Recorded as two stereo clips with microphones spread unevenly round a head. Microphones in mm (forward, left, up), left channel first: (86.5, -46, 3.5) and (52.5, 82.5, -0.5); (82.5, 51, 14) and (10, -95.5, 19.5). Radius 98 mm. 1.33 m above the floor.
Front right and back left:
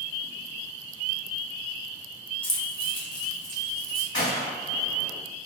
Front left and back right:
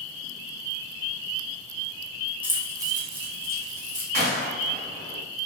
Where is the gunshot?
105° right, 1.8 m.